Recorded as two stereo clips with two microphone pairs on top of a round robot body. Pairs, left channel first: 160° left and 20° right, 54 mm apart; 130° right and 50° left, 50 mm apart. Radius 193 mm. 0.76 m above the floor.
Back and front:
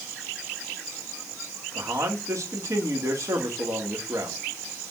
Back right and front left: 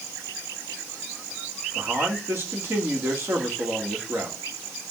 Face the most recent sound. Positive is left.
turn(degrees=5)